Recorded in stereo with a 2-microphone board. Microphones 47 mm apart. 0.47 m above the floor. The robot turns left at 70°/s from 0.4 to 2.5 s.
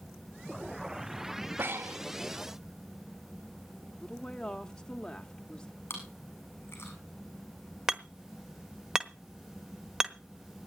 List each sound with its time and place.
1.6 s breathing: 65° right, 0.6 m; by 2.0 s 95° right, 0.6 m
3.9 s a woman speaking: 15° left (ahead or behind), 0.9 m
5.9 s chewing: 60° left (ahead or behind), 7.5 m
7.9 s hammering: 15° right (ahead or behind), 1.0 m